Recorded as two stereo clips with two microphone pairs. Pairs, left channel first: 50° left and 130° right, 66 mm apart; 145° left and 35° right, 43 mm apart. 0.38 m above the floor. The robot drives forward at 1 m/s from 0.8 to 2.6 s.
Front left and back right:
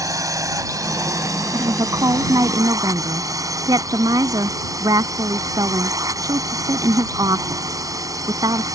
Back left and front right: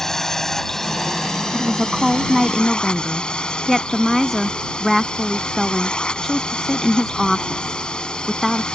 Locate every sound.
0.0 s a drone: 140° right; by 8.8 s 150° right
1.5 s a woman speaking: 110° right; by 8.8 s 130° right